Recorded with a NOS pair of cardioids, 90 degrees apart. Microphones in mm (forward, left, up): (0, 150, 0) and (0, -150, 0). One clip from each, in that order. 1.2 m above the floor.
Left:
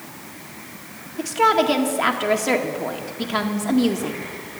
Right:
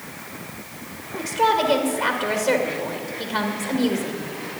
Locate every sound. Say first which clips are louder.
1.2 s a woman speaking: left 2 dB; 50° left, 1.8 m